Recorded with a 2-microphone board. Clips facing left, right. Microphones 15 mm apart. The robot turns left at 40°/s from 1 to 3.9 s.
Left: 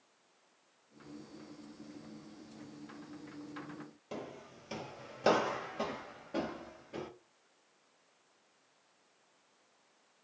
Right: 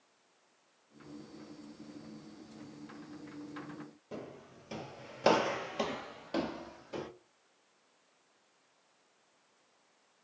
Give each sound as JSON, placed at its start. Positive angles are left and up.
{"t": 4.1, "sound": "footsteps", "side_deg": 45, "distance_m": 0.8}